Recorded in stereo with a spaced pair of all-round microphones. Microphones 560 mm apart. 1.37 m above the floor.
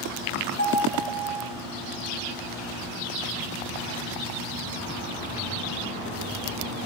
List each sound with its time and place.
0.6 s a piano: 20° left (ahead or behind), 7.5 m